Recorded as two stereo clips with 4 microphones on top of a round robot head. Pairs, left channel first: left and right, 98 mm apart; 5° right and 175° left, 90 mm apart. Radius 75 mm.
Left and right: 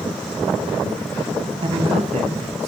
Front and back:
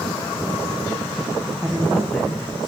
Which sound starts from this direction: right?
A man speaking, at 1.6 s.